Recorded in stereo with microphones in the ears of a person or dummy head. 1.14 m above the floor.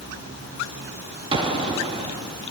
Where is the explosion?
20° right (ahead or behind), 2 m.